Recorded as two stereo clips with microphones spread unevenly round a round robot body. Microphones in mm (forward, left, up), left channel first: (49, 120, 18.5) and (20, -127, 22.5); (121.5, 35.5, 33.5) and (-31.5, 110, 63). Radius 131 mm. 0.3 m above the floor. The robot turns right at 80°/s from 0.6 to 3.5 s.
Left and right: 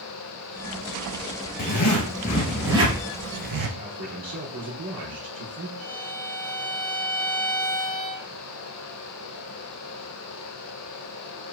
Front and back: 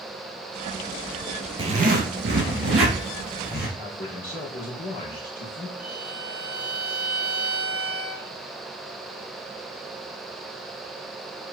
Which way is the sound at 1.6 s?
95° left.